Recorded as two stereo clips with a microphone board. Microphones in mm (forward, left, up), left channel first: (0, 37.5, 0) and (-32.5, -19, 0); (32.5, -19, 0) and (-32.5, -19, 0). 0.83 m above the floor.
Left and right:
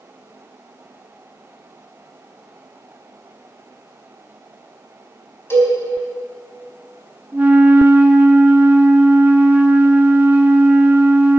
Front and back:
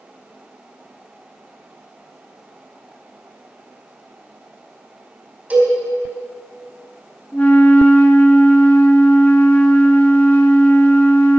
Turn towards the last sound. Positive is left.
turn(degrees=-60)